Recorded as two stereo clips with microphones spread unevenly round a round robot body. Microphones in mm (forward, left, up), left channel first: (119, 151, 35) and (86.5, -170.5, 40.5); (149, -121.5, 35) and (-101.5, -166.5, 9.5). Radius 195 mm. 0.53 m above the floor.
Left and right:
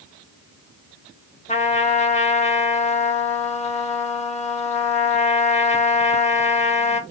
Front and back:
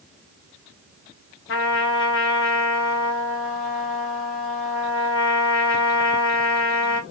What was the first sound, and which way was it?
A trumpet, 20° left.